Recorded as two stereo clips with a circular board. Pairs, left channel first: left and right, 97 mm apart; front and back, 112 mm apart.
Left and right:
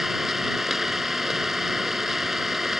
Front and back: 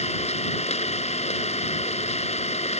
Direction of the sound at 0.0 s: 5° right.